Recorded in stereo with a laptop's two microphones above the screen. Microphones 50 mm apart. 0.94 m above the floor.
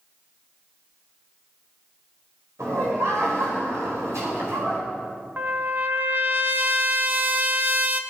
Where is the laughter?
80° right, 4 m.